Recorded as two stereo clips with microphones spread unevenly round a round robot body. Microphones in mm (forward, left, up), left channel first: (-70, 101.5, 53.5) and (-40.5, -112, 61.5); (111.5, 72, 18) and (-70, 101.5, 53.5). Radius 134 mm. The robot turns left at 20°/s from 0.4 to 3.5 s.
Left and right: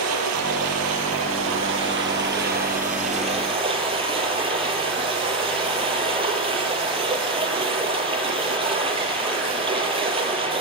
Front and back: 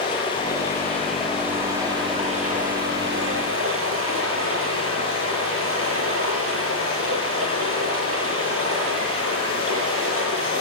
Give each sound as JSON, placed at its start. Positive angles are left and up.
{"t": 0.0, "sound": "running water", "azimuth_deg": -85, "distance_m": 7.0}